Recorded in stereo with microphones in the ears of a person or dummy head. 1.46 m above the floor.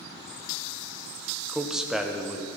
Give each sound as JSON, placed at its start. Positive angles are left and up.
{"t": 1.5, "sound": "a man speaking", "side_deg": 5, "distance_m": 1.1}